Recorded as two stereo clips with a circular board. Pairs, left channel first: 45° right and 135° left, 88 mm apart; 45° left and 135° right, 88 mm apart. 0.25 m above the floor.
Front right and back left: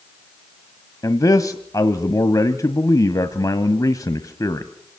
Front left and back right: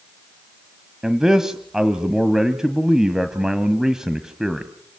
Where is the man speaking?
55° right, 1.4 m.